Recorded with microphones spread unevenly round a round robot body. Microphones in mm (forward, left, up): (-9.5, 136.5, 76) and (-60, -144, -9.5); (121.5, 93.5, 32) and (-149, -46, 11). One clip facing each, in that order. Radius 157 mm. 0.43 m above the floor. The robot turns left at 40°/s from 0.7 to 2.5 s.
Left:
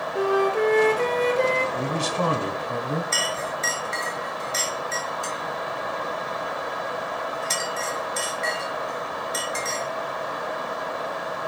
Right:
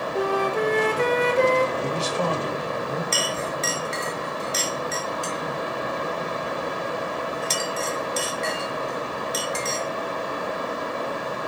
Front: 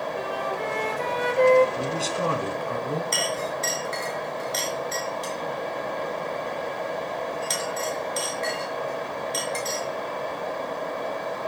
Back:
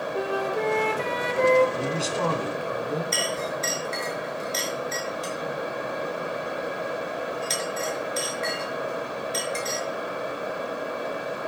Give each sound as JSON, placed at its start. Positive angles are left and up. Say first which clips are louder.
{"t": 0.1, "sound": "a flute", "louder": "left 3 dB, back 4 dB", "azimuth_deg": -110, "distance_m": 1.9}
{"t": 1.8, "sound": "a man speaking", "louder": "right 1 dB, back 1 dB", "azimuth_deg": 130, "distance_m": 3.5}
{"t": 3.1, "sound": "a clink", "louder": "right 3 dB, even", "azimuth_deg": -45, "distance_m": 5.0}